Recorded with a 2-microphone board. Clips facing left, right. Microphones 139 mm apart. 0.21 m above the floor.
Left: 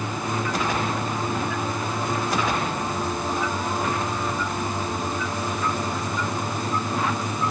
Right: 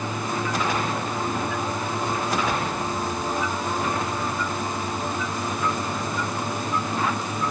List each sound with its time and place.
Only background noise.